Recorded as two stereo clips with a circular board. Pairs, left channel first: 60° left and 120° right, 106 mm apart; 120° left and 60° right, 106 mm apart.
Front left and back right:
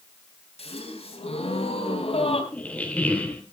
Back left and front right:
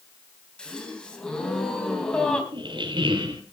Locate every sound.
0.6 s a gasp: 40° left, 4 m
2.5 s a squeak: 15° right, 2.5 m